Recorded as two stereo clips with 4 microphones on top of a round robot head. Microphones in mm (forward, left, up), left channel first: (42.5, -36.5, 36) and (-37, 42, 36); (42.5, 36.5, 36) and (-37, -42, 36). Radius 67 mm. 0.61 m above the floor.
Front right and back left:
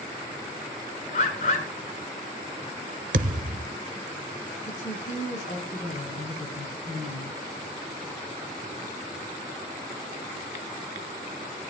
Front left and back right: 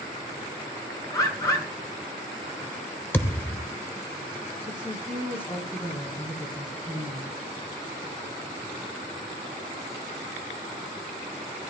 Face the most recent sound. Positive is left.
turn(degrees=-25)